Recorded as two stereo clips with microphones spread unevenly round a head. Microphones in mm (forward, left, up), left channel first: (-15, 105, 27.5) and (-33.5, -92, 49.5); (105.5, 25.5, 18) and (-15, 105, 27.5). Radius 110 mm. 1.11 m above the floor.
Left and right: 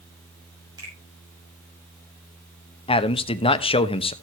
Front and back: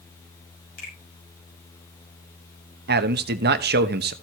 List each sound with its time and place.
0.8 s a finger snap: 20° right, 6.5 m
2.9 s a man speaking: 150° left, 0.9 m